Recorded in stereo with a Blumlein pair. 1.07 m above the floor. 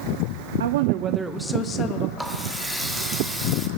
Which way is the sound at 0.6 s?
65° right.